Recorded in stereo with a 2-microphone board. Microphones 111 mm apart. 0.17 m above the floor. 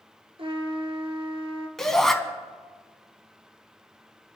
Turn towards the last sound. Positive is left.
turn(degrees=5)  # may be behind; listen again after turning